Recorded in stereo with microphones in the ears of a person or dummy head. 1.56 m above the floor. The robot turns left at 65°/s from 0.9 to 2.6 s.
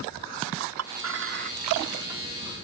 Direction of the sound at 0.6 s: 80° right.